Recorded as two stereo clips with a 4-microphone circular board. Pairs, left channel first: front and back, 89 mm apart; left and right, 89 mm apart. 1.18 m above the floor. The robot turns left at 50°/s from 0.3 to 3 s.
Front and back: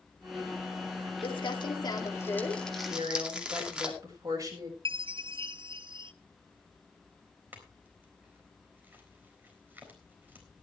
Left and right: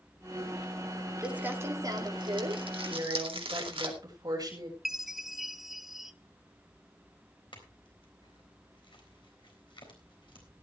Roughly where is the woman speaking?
Behind right.